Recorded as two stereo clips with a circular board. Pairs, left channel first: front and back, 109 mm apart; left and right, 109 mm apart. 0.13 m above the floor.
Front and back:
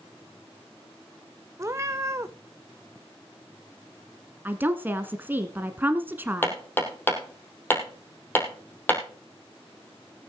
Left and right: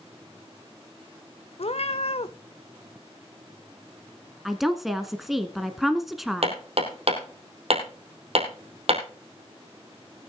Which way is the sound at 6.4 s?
70° right.